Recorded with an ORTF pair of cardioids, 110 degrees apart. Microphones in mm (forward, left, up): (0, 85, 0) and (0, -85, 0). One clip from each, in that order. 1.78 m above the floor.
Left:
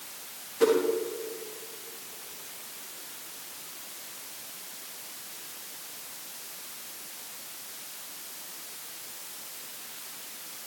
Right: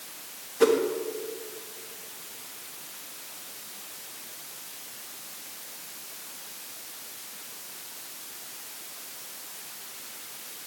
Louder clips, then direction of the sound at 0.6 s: Right 2 dB; 15° right.